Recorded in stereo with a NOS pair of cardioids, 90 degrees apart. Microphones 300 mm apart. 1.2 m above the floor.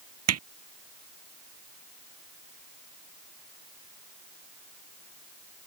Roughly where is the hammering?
Ahead right.